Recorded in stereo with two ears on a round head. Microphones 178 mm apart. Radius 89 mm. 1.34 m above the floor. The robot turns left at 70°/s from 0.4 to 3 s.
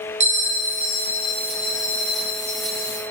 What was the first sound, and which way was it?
A bell, 145° right.